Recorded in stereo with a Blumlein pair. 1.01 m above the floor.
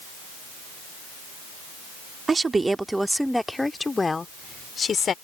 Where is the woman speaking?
15° right; by 5.1 s 20° left.